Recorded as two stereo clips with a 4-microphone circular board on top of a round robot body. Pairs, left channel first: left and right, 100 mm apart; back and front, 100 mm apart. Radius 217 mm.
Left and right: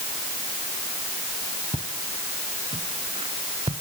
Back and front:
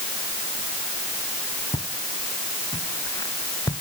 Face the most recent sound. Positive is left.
turn(degrees=-125)